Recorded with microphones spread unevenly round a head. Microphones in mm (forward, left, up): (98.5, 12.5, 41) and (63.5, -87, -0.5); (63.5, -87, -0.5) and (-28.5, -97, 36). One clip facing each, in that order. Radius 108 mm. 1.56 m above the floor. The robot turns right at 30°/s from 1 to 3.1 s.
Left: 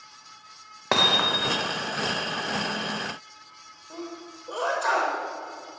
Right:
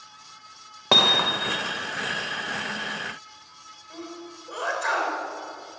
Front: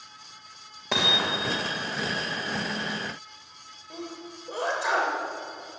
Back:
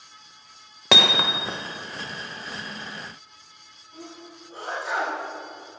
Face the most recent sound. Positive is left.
turn(degrees=10)